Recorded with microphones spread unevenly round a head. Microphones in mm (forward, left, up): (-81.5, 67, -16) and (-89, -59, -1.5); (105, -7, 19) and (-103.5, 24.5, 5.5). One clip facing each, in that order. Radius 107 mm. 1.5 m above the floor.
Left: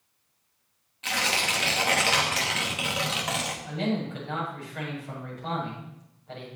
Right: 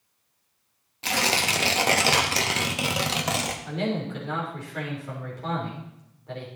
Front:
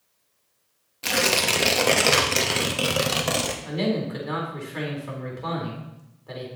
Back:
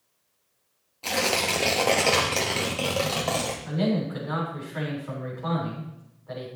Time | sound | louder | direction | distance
1.0 | tearing paper | right 3 dB, front 2 dB | 70° right | 1.0 m
3.6 | a man speaking | left 1 dB, even | 55° right | 4 m